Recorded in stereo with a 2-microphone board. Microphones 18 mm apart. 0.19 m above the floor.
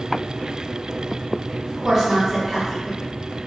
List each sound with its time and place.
1.6 s a woman speaking: 15° right (ahead or behind), 1.0 m